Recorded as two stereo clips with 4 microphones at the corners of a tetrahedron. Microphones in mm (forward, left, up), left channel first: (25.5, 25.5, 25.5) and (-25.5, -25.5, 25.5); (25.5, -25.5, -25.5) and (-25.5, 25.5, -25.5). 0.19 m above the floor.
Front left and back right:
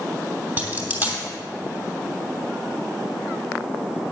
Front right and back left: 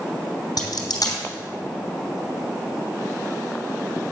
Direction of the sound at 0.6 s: 70° right.